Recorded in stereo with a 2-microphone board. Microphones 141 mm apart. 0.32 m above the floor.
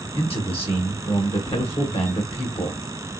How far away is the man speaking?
About 1.3 m.